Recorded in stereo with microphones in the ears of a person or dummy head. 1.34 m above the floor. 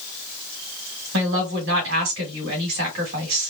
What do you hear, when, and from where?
1.1 s a woman speaking: 55° right (ahead or behind), 1.8 m